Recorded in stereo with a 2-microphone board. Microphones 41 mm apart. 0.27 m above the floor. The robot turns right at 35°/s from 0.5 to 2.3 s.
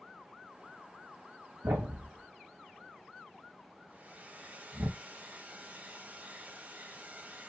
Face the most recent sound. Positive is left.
turn(degrees=-40)  # may be behind; listen again after turning